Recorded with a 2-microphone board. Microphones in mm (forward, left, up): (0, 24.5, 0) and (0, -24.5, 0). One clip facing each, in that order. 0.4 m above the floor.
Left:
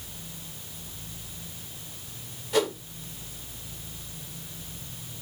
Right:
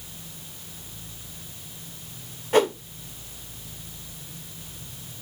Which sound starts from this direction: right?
A whoosh, at 2.5 s.